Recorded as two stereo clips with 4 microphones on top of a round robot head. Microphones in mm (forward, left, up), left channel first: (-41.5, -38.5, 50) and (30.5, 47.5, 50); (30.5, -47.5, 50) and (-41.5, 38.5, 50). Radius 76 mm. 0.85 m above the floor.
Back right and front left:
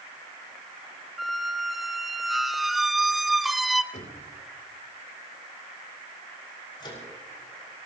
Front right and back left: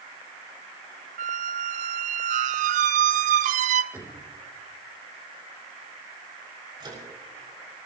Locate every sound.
1.2 s a squeak: 140° left, 0.6 m
3.9 s knocking: 155° right, 3.5 m
6.8 s a microwave: straight behind, 6 m